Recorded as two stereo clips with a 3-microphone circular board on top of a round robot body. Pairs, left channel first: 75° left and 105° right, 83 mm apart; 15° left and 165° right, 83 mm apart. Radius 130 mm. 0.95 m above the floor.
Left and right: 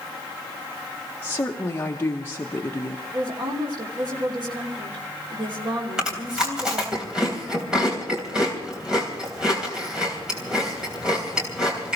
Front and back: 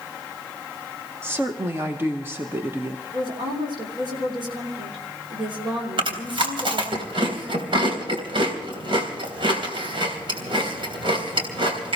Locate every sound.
1.2 s a woman speaking: 135° left, 1.3 m
3.1 s a woman speaking: 135° right, 3 m
6.0 s chewing: 170° left, 3 m